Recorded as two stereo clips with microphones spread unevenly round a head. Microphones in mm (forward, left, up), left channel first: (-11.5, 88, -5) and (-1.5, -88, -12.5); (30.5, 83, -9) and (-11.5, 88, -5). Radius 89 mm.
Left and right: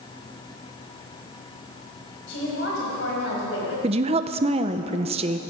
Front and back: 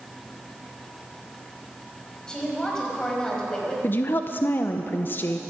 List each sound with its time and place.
2.3 s a woman speaking: 65° left, 5.5 m
3.8 s a woman speaking: 35° right, 0.7 m